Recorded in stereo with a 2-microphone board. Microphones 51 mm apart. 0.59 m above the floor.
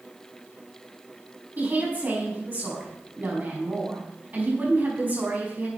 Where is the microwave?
No microwave in this recording.